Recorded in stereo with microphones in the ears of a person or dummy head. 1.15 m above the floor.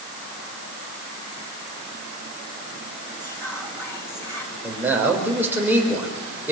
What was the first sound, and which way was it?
Whispering, 20° left (ahead or behind).